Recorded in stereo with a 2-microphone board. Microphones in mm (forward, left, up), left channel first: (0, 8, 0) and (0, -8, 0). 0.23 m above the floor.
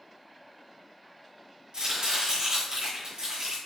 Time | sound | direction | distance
1.7 | chopping | 55° right (ahead or behind) | 2.5 m